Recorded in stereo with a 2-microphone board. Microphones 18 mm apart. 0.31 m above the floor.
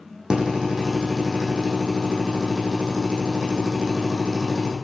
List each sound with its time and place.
0.3 s a drill: 50° right (ahead or behind), 5.5 m